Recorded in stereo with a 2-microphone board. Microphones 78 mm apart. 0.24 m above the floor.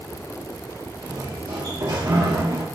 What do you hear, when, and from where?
1.0 s a sliding door: 75° right (ahead or behind), 3 m